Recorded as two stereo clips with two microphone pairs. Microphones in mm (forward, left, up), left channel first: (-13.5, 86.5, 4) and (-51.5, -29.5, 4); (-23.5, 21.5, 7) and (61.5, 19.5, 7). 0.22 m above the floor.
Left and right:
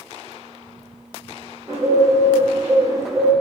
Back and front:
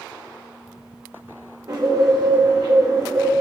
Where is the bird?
40° right, 2.5 m.